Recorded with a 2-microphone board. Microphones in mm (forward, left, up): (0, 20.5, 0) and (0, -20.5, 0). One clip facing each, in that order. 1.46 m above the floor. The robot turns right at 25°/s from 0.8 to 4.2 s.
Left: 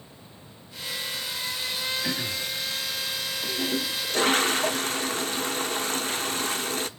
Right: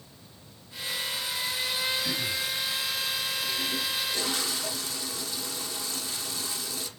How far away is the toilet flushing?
About 0.6 m.